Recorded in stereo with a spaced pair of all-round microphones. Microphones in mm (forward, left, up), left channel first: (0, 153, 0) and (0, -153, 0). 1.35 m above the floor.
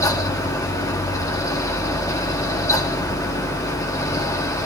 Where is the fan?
10° left (ahead or behind), 1.5 m.